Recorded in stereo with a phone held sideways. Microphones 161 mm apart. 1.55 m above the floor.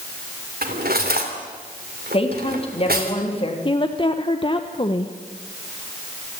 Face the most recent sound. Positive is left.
turn(degrees=30)  # may be behind; listen again after turning